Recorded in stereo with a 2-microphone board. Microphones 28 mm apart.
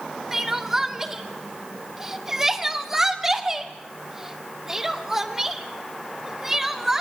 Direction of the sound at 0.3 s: 15° right (ahead or behind).